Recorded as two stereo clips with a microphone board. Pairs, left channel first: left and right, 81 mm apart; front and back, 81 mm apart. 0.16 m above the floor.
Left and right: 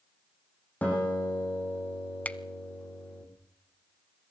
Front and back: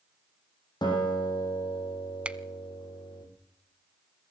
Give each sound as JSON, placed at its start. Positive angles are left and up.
{"t": 0.8, "sound": "a guitar", "azimuth_deg": 20, "distance_m": 9.5}
{"t": 2.2, "sound": "a finger snap", "azimuth_deg": 130, "distance_m": 0.8}